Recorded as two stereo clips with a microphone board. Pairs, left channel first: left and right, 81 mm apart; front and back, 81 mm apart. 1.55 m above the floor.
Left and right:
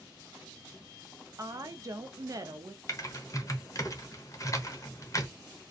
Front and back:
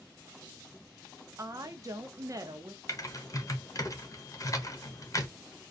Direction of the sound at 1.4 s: 135° right.